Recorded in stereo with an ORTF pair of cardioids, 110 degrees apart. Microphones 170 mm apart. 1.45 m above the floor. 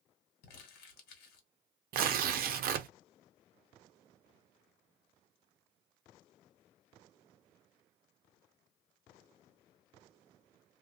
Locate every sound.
0.4 s crumpling: 70° left, 1.5 m
1.9 s tearing paper: 60° right, 0.6 m